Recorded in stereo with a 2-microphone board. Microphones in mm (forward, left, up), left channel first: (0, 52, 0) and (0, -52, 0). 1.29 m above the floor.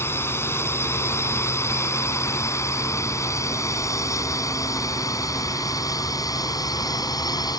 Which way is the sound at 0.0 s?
25° left (ahead or behind).